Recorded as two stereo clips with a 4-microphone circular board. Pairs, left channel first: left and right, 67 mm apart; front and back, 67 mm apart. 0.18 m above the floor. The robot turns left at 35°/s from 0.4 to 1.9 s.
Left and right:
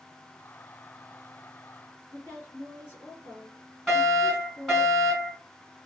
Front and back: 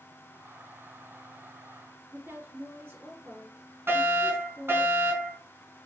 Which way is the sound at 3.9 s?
170° left.